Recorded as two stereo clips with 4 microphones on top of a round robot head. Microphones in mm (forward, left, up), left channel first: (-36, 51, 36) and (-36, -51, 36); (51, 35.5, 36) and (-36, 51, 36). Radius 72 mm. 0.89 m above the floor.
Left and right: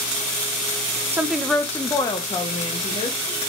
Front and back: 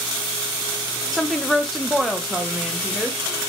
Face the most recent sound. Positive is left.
turn(degrees=85)